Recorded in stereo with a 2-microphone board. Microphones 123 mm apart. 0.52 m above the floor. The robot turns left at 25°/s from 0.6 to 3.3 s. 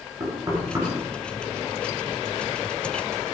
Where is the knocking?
30° right (ahead or behind), 6.5 m; by 0.9 s 25° right (ahead or behind), 6.5 m.